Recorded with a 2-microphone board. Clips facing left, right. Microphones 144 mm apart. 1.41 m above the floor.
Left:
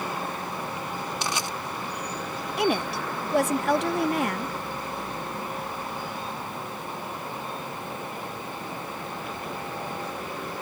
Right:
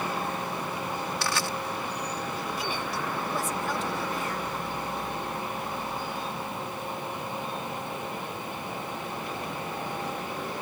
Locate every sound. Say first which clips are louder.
1.2 s crushing: even; 20° left (ahead or behind)
2.6 s a woman speaking: left 7 dB; 70° left (ahead or behind)